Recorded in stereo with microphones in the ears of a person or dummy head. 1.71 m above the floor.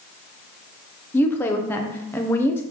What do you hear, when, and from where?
1.1 s a woman speaking: 10° left (ahead or behind), 1.0 m